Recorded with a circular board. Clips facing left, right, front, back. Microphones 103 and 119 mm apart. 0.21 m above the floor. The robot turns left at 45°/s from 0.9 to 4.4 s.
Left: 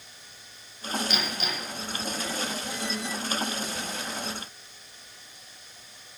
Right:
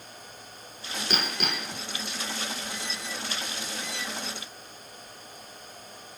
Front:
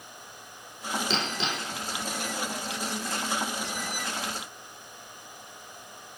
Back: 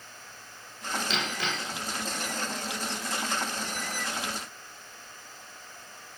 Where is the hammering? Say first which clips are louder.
Right 1 dB, front 2 dB; 50° right, 2.0 m; by 1.8 s 80° right, 2.0 m.